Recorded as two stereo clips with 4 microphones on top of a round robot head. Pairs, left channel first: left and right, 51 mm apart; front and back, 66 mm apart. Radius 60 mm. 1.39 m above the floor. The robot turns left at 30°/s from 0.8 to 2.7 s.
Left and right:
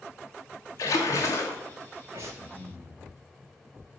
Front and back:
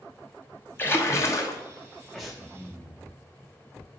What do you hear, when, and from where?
0.8 s a splash: 60° left, 1.2 m; by 1.6 s 35° left, 1.2 m
2.1 s breathing: 85° right, 1.0 m; by 3.0 s 100° right, 1.0 m